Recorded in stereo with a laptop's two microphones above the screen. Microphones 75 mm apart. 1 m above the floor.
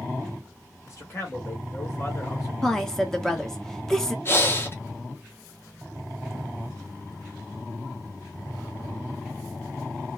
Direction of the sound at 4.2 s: 35° left (ahead or behind).